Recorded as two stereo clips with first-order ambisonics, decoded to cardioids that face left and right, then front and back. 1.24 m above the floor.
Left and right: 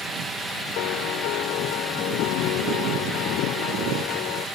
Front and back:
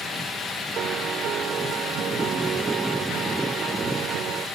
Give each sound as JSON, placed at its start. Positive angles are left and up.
{"t": 0.8, "sound": "a piano", "azimuth_deg": 120}